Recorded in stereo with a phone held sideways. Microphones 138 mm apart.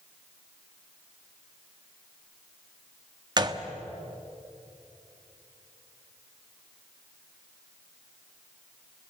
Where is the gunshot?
35° right (ahead or behind), 1.2 m.